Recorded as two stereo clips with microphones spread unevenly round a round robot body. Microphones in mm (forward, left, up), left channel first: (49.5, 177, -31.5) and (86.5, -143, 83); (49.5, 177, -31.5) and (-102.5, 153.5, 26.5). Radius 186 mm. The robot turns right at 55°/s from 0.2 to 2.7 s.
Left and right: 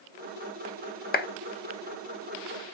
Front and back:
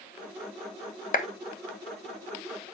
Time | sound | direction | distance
1.1 | a clap | 40° left | 1.6 m